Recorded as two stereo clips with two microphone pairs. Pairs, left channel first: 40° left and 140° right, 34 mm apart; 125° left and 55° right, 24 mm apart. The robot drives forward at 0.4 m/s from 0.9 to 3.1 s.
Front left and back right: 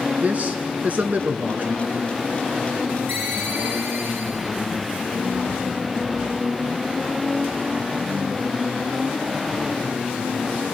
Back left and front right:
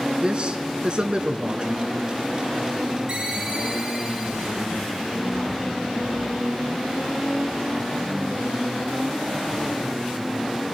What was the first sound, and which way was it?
A man speaking, 105° right.